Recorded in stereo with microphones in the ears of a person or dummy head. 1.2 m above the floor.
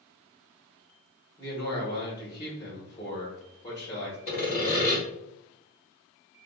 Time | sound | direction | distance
1.4 | a man speaking | 25° left (ahead or behind) | 1.2 m
4.3 | sawing | 45° left (ahead or behind) | 1.4 m